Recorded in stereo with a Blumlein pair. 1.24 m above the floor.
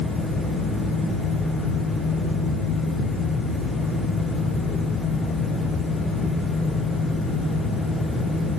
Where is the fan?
5° left, 0.8 m.